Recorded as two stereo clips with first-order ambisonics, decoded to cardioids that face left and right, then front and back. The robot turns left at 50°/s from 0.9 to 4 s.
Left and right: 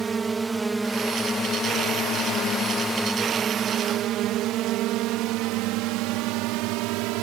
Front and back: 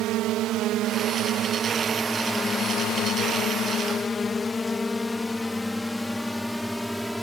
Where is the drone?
160° right; by 7.2 s 90° right.